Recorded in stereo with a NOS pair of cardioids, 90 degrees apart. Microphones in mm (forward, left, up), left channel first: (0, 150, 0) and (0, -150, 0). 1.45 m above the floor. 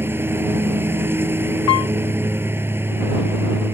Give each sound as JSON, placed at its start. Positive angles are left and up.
{"t": 0.0, "sound": "a lawn mower", "azimuth_deg": -10}
{"t": 1.7, "sound": "a piano", "azimuth_deg": 60}